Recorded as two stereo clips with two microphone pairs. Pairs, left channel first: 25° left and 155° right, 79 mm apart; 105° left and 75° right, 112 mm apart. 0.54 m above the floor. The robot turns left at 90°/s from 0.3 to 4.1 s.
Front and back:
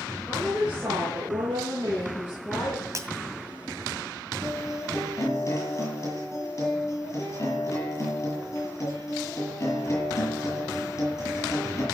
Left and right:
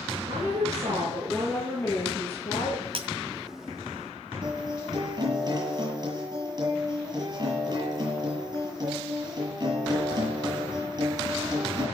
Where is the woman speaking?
55° right, 8.5 m; by 2.9 s 75° left, 8.5 m.